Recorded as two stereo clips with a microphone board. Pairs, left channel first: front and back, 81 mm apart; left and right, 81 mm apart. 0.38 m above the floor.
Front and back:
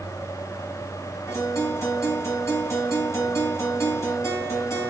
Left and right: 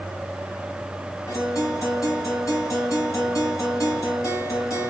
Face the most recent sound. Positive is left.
turn(degrees=50)